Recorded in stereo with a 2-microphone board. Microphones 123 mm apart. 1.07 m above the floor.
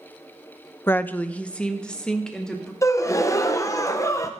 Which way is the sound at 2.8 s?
25° left (ahead or behind).